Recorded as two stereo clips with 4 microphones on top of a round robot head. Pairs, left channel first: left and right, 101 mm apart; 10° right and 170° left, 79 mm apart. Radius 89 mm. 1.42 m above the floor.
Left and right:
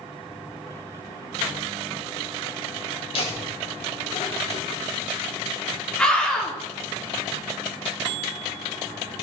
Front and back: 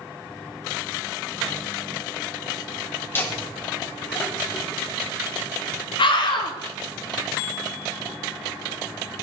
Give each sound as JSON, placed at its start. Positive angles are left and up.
{"t": 3.1, "sound": "laughter", "azimuth_deg": 50, "distance_m": 5.0}
{"t": 6.0, "sound": "a scream", "azimuth_deg": 5, "distance_m": 4.0}